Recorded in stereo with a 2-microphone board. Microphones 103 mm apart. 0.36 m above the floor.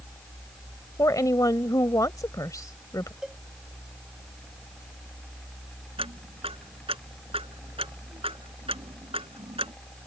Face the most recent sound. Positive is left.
turn(degrees=-70)  # may be behind; listen again after turning